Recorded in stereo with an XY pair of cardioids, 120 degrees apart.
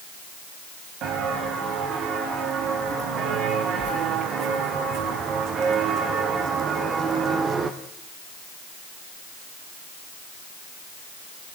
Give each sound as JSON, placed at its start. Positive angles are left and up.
{"t": 1.0, "sound": "footsteps", "azimuth_deg": -65, "distance_m": 7.5}